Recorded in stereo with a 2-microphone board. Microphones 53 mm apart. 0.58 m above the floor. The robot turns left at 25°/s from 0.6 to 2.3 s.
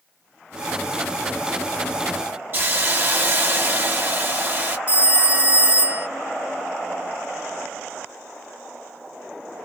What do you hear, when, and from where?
2.5 s a hiss: 40° right (ahead or behind), 1.1 m
4.9 s a phone ringing: 25° right (ahead or behind), 0.5 m